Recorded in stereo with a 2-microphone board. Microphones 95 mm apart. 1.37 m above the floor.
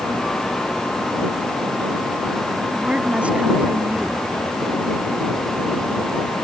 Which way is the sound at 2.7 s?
15° right (ahead or behind).